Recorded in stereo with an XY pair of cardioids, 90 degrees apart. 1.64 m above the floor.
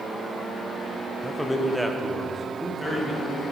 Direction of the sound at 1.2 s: 5° left.